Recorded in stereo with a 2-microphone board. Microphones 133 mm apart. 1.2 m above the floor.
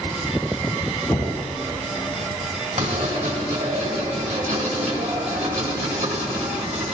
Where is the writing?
65° right (ahead or behind), 1.9 m.